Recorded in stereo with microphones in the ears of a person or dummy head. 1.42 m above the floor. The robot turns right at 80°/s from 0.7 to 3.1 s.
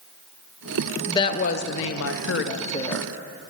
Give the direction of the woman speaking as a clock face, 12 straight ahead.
12 o'clock.